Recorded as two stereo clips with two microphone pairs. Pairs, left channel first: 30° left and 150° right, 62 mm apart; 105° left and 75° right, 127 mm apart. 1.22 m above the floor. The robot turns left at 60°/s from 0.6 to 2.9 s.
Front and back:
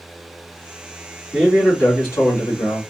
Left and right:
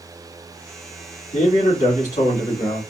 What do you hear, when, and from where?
1.3 s a man speaking: 130° left, 2 m; by 2.8 s 40° left, 2 m